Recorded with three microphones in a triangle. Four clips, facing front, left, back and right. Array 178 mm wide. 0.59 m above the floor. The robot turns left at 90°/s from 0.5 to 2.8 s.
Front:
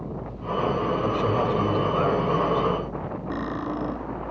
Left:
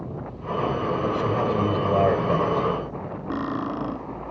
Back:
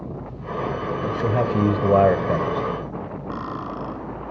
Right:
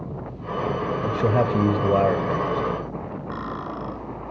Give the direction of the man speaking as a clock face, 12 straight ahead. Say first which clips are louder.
Right 4 dB, back 4 dB; 3 o'clock.